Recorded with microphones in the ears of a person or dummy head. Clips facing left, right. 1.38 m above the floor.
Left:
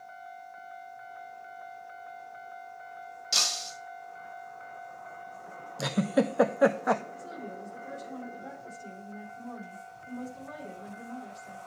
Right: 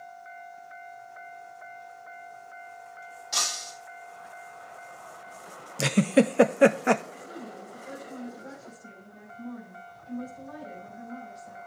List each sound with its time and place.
3.3 s breaking glass: 45° left (ahead or behind), 5 m
5.8 s a giggle: 45° right (ahead or behind), 0.7 m
7.2 s a woman speaking: 75° left (ahead or behind), 7.5 m